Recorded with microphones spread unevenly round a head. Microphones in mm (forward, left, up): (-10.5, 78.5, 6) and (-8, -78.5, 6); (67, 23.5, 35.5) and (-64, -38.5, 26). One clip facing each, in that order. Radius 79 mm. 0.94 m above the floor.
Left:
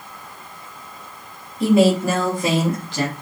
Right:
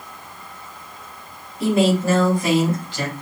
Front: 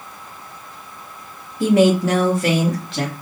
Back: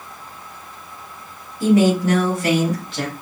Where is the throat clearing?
I don't hear throat clearing.